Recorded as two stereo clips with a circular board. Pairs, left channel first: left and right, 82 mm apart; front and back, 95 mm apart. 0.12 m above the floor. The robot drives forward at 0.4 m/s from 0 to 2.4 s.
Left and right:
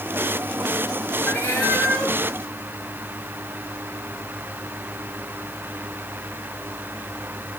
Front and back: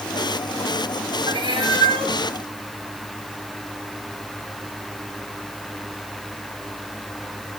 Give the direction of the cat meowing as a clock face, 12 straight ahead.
7 o'clock.